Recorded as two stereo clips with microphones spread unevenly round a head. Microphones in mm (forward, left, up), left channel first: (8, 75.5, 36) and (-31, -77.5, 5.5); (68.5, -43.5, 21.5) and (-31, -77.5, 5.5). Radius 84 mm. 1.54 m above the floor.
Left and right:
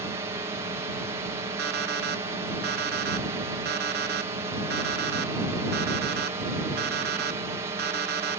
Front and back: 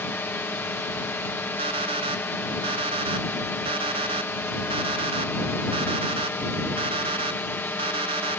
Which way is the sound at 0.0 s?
45° right.